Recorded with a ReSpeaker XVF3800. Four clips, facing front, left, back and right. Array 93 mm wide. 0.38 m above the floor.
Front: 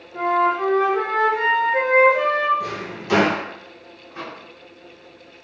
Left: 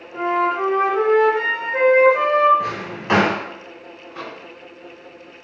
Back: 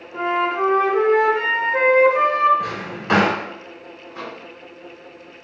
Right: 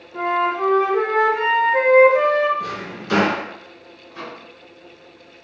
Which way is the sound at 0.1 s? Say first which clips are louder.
Left 1 dB, front 1 dB; 155° left.